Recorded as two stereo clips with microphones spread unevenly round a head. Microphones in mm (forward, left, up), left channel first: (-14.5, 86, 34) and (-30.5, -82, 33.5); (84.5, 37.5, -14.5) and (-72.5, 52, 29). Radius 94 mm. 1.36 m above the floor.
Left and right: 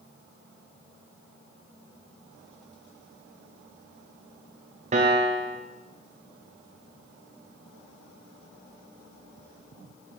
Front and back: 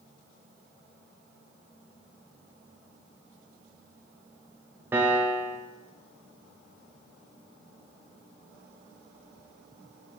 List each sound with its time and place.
4.9 s a piano: 130° right, 0.6 m